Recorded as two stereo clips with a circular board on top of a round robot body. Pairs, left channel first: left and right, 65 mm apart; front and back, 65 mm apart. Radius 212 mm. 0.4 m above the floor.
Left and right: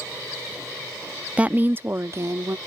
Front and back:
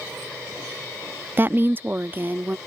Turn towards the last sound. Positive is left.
turn(degrees=-120)